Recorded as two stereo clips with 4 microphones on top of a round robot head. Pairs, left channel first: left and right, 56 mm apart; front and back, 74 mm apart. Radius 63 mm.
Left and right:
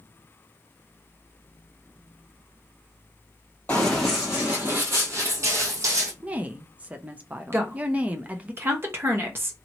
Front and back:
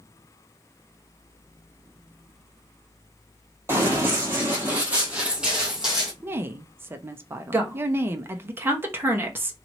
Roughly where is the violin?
No violin in this recording.